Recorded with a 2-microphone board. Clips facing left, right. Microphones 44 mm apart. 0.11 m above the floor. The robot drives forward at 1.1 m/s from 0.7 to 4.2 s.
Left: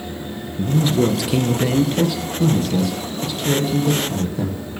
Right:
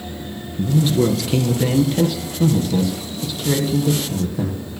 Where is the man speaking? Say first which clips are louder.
Even; 5° left (ahead or behind), 1.6 m; by 4.6 s centre (ahead or behind), 5 m.